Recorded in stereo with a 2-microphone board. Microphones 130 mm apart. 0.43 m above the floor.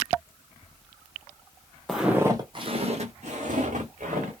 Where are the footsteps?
Centre (ahead or behind), 0.7 m; by 4.3 s 75° right (ahead or behind), 1.7 m.